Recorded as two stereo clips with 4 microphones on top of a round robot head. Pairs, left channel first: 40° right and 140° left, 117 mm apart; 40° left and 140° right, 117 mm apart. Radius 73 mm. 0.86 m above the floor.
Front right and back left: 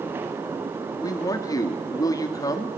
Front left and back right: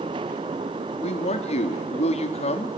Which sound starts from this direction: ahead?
A man speaking, at 1.0 s.